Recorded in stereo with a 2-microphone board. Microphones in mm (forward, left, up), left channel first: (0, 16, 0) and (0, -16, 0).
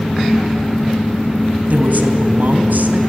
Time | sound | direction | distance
1.7 | a woman speaking | 65° right (ahead or behind) | 3 m